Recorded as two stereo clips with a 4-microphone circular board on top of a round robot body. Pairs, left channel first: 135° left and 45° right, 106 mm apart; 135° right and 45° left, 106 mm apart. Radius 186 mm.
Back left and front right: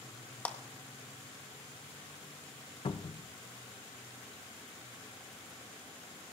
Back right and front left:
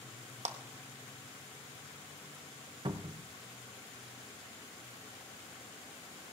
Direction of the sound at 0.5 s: 60° left.